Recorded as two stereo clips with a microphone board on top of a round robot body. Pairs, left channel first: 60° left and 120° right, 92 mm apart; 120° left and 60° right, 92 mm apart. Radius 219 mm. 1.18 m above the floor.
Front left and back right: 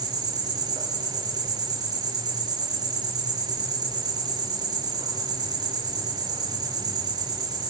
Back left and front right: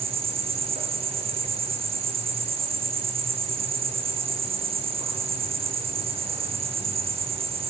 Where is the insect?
75° right, 4 m.